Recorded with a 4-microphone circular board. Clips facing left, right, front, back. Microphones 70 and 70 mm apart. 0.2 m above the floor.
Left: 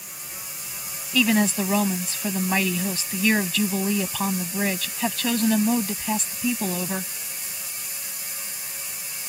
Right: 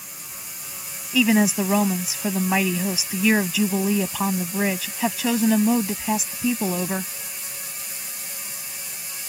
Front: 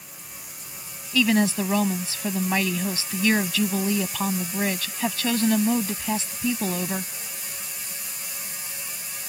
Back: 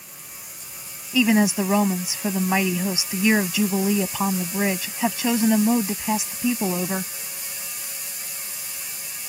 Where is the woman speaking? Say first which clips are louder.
Right 2 dB, back 2 dB; 150° right.